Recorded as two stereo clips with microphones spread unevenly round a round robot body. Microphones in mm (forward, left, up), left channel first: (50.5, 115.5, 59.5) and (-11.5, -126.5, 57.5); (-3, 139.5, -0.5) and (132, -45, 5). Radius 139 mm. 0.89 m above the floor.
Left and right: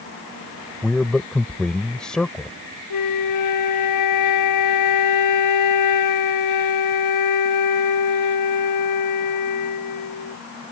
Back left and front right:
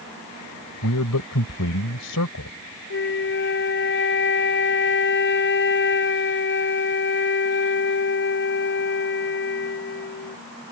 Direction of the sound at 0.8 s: 165° left.